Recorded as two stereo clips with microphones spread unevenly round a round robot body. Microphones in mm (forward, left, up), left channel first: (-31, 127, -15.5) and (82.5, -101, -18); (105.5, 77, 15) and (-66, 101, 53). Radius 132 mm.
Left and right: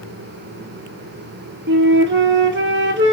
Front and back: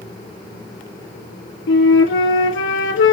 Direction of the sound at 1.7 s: 15° right.